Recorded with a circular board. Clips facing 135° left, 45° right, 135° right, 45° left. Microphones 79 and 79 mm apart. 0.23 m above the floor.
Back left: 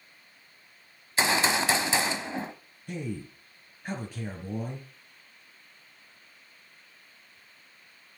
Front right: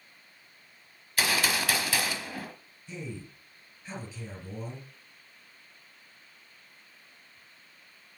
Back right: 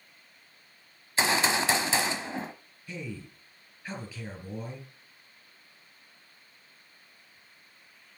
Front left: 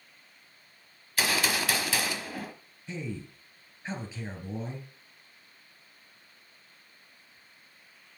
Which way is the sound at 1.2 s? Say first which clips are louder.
Back left 3 dB, back right 3 dB; straight behind.